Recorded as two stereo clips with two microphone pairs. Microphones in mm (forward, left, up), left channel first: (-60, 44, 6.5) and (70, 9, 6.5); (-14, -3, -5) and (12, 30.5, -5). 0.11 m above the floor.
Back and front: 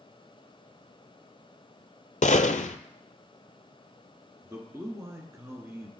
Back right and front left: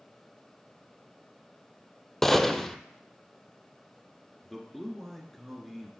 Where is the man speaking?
45° right, 1.2 m.